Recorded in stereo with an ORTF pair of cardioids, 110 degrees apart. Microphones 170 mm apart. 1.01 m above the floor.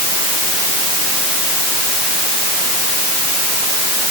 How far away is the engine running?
No engine running in this recording.